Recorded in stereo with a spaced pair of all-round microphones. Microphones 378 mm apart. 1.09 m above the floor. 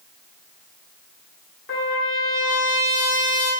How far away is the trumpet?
About 1.2 m.